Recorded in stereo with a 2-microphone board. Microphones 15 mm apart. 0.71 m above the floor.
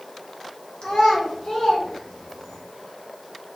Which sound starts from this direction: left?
A child speaking, at 0.8 s.